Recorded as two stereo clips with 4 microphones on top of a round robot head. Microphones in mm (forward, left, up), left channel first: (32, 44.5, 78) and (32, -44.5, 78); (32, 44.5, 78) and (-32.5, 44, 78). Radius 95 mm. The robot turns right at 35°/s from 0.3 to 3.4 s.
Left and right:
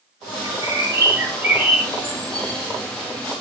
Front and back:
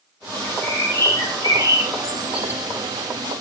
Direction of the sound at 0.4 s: 55° right.